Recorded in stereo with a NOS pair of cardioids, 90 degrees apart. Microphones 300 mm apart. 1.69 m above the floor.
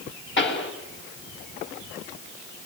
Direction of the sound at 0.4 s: 40° left.